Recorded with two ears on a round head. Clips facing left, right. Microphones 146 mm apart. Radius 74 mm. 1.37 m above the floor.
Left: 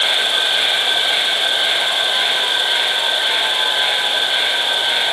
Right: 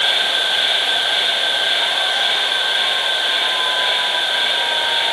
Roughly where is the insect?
Left.